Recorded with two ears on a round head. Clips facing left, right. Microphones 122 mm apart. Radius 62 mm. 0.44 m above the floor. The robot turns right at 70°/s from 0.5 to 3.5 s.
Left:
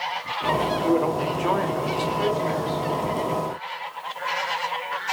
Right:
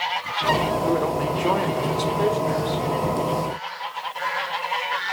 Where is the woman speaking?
15° left (ahead or behind), 0.9 m; by 2.8 s 30° right (ahead or behind), 0.9 m.